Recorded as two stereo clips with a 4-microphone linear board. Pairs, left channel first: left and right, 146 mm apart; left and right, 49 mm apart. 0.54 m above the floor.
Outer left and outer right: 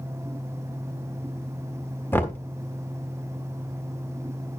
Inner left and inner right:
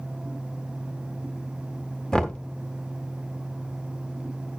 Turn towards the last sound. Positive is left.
turn(degrees=15)  # may be behind; listen again after turning